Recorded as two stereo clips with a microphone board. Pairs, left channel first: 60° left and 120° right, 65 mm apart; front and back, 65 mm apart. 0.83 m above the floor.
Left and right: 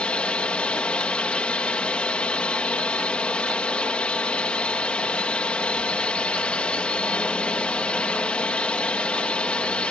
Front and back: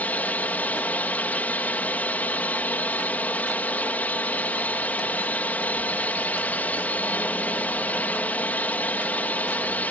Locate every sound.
0.0 s a drone: 15° left